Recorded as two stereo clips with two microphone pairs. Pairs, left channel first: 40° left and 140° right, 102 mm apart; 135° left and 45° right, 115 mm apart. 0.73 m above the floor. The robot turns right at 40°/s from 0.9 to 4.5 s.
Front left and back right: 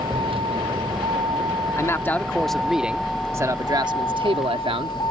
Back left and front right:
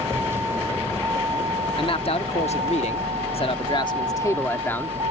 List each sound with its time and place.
0.0 s a vehicle: 115° right; by 5.1 s 10° right
1.8 s a man speaking: 95° left; by 5.0 s 155° right